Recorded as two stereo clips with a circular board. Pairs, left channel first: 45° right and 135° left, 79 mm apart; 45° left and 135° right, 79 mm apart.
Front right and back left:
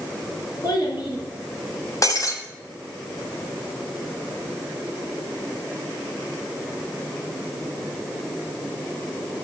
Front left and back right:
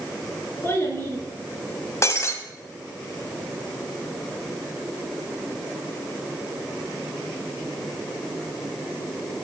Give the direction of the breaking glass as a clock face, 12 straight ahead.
12 o'clock.